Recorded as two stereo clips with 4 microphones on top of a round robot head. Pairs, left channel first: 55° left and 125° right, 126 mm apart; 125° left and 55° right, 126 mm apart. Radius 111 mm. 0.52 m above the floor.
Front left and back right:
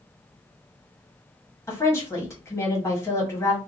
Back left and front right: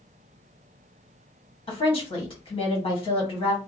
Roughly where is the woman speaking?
Behind left.